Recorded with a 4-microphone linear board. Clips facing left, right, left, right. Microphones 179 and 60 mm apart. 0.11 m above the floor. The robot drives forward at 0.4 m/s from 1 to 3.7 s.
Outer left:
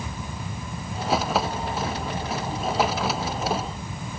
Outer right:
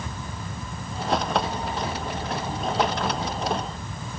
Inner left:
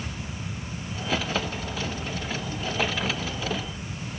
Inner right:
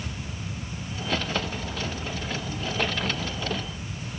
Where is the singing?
No singing in this recording.